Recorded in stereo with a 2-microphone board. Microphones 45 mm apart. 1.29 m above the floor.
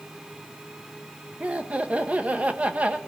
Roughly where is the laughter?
Right.